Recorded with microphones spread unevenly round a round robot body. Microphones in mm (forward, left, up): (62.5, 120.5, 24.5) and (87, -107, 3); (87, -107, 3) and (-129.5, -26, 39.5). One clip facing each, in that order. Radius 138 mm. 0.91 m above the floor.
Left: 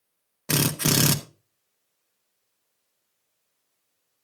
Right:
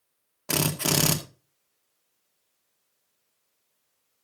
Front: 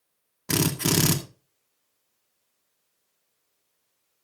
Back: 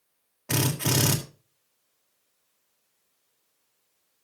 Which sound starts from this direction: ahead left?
A drill, at 0.5 s.